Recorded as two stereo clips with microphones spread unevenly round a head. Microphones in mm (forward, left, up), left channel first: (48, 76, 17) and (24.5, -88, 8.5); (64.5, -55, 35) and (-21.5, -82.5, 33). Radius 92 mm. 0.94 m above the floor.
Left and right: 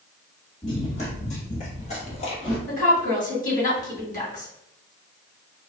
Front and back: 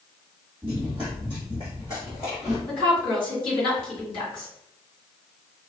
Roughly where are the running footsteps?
Behind left.